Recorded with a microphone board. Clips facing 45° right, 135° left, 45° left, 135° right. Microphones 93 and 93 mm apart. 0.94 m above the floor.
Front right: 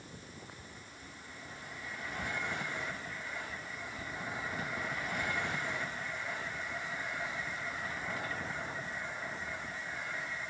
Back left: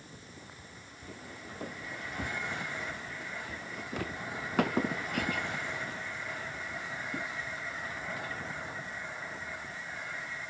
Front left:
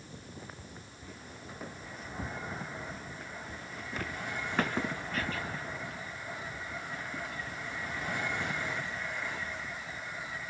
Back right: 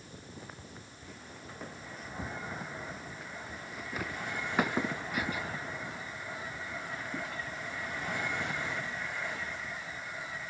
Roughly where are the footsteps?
Behind left.